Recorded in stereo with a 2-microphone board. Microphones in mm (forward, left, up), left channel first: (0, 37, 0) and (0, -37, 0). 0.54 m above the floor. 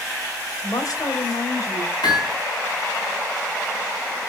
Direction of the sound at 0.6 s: 60° left (ahead or behind).